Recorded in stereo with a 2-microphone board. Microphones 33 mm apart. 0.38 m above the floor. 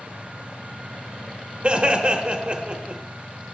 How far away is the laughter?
About 0.9 m.